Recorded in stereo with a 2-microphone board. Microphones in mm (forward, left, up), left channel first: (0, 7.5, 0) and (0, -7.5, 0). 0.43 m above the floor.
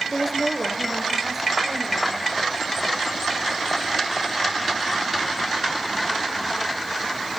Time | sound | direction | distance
0.1 | a woman speaking | centre (ahead or behind) | 1.5 m